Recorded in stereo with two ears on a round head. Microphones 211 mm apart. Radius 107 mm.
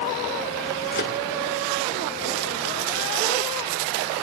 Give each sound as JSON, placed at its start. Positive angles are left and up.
{"t": 0.9, "sound": "a microwave", "side_deg": 45, "distance_m": 1.9}